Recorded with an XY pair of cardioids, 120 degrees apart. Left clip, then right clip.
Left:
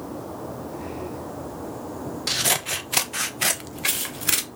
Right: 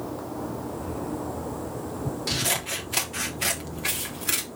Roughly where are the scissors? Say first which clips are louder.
Left 4 dB; ahead left.